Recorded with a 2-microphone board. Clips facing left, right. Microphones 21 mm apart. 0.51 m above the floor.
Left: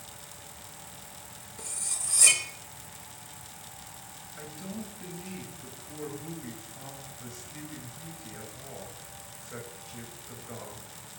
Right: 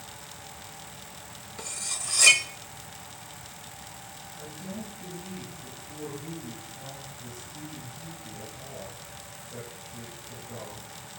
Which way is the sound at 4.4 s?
80° left.